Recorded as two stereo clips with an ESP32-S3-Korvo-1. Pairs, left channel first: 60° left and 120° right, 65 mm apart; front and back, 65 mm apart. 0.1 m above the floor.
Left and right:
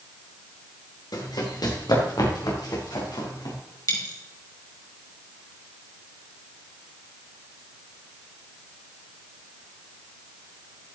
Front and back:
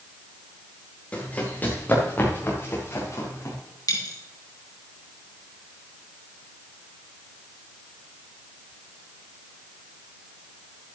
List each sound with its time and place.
1.1 s running footsteps: 70° left, 3.5 m; by 3.5 s 45° left, 5 m
3.9 s a dropped coin: 30° left, 3.5 m